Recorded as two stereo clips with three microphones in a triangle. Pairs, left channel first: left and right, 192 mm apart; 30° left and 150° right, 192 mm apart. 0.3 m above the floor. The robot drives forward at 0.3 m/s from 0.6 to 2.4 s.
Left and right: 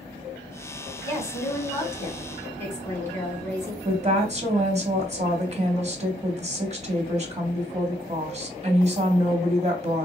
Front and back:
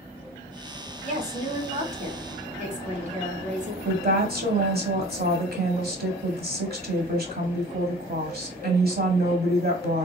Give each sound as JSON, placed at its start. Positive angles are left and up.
{"t": 1.0, "sound": "a woman speaking", "azimuth_deg": 160, "distance_m": 1.9}
{"t": 3.9, "sound": "a woman speaking", "azimuth_deg": -135, "distance_m": 1.4}